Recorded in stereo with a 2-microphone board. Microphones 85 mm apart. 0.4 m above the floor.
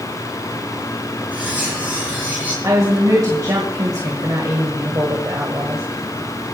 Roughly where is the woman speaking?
Right.